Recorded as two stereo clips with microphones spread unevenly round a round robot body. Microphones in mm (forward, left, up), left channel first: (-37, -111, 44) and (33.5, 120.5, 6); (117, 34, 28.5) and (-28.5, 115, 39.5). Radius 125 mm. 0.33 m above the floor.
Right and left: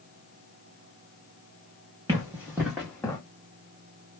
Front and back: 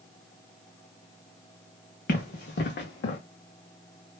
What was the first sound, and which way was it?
Running footsteps, 5° right.